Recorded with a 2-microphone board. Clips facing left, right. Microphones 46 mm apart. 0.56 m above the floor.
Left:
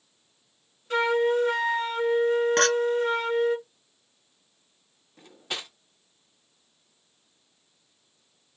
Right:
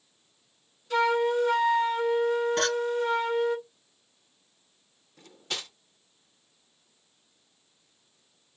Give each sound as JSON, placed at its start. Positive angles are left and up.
{"t": 0.9, "sound": "a flute", "side_deg": 35, "distance_m": 1.6}
{"t": 2.6, "sound": "a clink", "side_deg": 65, "distance_m": 1.1}
{"t": 5.2, "sound": "cutlery clinking", "side_deg": 15, "distance_m": 0.5}